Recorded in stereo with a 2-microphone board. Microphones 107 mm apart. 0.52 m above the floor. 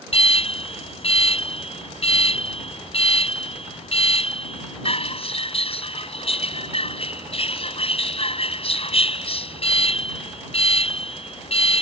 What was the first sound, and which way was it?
An alarm, 60° left (ahead or behind).